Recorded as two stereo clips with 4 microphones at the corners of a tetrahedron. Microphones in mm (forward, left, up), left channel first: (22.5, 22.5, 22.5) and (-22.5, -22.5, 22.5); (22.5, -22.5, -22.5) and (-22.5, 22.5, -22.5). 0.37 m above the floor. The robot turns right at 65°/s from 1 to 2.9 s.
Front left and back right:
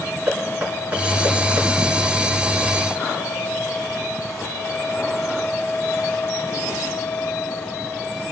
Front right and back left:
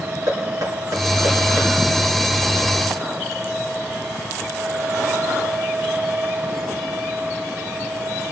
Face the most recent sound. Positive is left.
turn(degrees=-75)